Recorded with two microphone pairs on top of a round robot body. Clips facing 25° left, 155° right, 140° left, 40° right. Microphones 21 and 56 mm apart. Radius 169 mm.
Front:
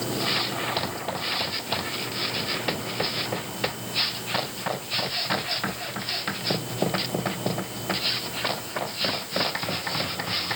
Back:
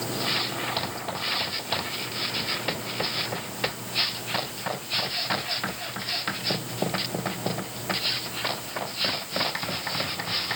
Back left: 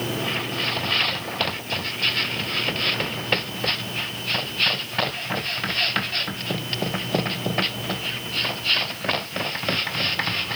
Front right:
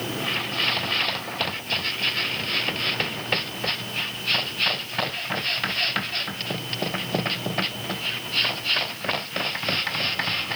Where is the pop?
I don't hear a pop.